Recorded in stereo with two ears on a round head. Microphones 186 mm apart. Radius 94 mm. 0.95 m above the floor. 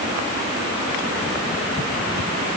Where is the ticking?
No ticking in this recording.